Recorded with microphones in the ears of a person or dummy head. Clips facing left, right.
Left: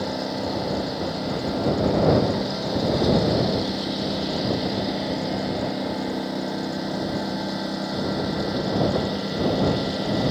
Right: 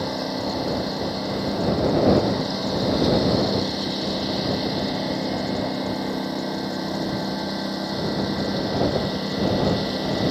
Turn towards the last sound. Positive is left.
turn(degrees=5)  # may be behind; listen again after turning